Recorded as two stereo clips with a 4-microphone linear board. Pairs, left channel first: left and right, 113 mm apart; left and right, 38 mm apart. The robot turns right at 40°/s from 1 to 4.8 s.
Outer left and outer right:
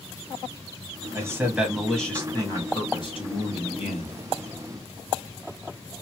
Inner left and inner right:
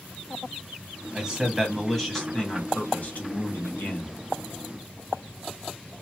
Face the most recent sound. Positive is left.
turn(degrees=115)